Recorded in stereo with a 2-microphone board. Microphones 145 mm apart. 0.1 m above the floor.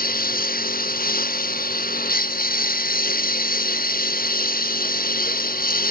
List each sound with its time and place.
0.0 s a lawn mower: 80° left